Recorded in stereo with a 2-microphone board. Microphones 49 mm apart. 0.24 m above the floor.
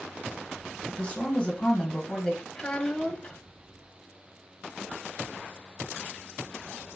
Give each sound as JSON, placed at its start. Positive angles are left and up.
{"t": 0.9, "sound": "a woman speaking", "side_deg": 25, "distance_m": 1.2}
{"t": 2.5, "sound": "a child speaking", "side_deg": 20, "distance_m": 0.5}